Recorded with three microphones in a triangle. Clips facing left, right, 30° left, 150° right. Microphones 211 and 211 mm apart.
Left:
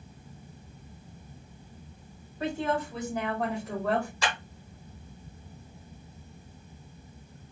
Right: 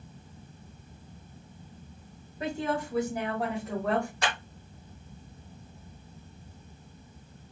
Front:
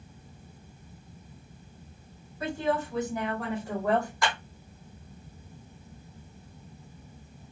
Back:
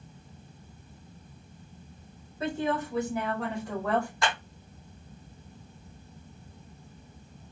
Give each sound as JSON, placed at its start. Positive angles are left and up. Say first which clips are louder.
{"t": 2.4, "sound": "a woman speaking", "louder": "left 1 dB, even", "azimuth_deg": -140, "distance_m": 1.5}
{"t": 4.2, "sound": "a clap", "louder": "even, even", "azimuth_deg": -85, "distance_m": 1.9}